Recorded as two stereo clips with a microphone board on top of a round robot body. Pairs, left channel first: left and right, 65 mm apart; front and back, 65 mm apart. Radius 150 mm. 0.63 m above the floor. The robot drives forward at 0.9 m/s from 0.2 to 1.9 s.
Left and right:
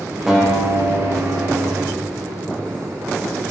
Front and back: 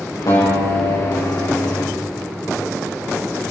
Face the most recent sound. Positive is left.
turn(degrees=-5)